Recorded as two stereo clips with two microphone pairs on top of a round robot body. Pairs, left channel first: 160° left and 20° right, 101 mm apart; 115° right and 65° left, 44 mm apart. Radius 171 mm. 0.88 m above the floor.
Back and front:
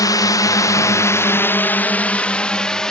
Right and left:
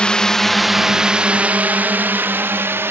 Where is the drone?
175° right; by 2.9 s 75° left.